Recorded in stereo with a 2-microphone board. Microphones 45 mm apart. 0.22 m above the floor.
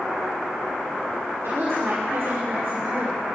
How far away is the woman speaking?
About 6.5 m.